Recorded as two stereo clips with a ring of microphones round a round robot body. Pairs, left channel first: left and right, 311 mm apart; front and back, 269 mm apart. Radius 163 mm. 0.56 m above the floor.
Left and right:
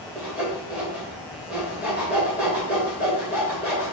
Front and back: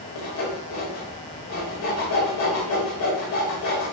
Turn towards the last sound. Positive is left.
turn(degrees=-5)